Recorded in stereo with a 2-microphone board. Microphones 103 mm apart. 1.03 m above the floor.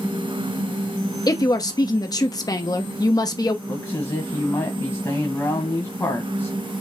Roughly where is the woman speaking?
Left.